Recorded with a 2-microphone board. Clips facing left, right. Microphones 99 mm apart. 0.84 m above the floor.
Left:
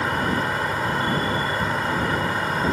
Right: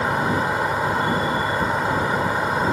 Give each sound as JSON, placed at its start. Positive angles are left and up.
{"t": 0.0, "sound": "an insect", "side_deg": -15}